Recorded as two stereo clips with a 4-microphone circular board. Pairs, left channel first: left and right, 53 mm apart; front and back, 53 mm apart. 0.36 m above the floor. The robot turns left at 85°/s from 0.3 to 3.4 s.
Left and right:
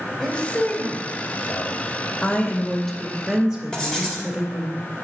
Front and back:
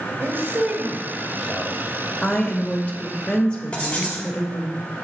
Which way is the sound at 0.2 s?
170° left.